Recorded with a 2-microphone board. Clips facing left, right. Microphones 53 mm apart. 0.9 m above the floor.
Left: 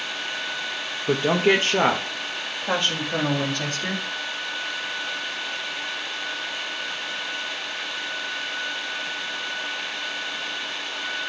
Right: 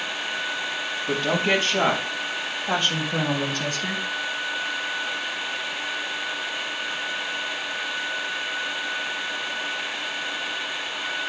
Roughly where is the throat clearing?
No throat clearing in this recording.